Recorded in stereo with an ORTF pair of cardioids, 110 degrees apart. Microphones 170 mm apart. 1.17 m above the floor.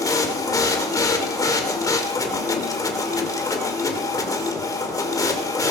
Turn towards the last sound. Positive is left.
turn(degrees=20)